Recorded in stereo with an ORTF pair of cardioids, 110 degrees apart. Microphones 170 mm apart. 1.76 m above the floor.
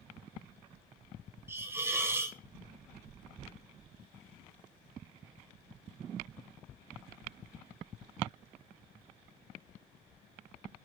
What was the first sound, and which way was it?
A hiss, 15° right.